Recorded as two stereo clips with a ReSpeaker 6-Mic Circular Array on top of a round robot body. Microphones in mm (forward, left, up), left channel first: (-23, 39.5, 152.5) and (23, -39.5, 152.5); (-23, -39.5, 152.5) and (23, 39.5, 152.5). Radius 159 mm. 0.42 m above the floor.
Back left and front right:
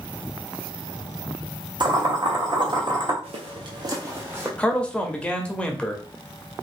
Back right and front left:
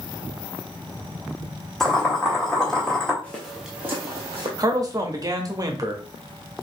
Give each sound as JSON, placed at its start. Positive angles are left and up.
{"t": 1.8, "sound": "boiling", "azimuth_deg": -35, "distance_m": 2.0}
{"t": 3.2, "sound": "footsteps", "azimuth_deg": -45, "distance_m": 1.0}
{"t": 4.6, "sound": "a man speaking", "azimuth_deg": 45, "distance_m": 1.2}